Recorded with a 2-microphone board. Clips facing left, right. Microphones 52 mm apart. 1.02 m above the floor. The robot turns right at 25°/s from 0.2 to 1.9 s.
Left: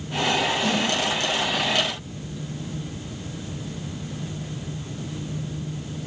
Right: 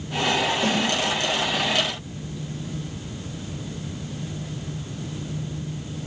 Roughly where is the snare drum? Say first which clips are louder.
Right 1 dB; right.